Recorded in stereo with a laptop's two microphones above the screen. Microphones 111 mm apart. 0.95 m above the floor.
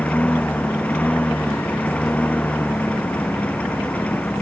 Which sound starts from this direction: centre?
A lawn mower, at 0.0 s.